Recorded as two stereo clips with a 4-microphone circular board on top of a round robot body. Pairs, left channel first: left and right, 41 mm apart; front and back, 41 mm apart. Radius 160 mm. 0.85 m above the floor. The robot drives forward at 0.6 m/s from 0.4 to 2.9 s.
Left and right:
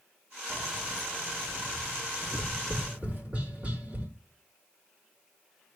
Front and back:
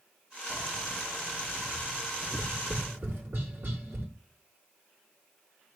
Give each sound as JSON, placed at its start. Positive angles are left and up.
{"t": 0.5, "sound": "keys jangling", "azimuth_deg": -95, "distance_m": 1.3}
{"t": 2.2, "sound": "tapping", "azimuth_deg": -140, "distance_m": 2.5}